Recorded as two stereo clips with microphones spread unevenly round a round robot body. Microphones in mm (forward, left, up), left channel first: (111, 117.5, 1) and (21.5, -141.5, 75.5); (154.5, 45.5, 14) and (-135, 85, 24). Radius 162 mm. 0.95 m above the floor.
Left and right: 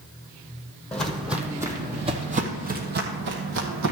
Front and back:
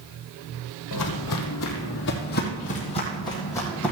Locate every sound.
0.9 s footsteps: 25° right, 1.5 m; by 3.9 s 95° right, 1.9 m